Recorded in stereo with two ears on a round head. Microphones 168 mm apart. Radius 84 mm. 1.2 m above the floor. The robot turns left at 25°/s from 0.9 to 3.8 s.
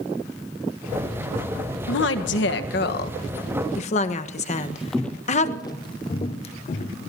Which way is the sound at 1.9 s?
70° left (ahead or behind).